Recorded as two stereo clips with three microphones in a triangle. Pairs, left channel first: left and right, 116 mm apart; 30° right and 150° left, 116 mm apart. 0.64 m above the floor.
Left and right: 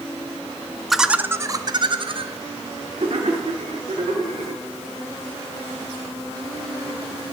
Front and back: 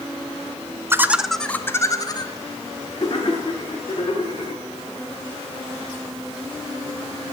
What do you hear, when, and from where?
0.9 s laughter: 175° left, 0.5 m; by 4.6 s 60° right, 2 m